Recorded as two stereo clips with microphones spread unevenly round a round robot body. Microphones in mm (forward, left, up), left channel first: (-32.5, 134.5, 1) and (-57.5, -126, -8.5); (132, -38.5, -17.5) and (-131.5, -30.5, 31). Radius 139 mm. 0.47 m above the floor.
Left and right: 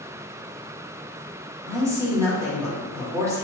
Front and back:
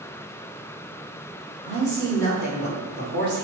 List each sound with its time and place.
1.6 s a man speaking: 160° right, 1.4 m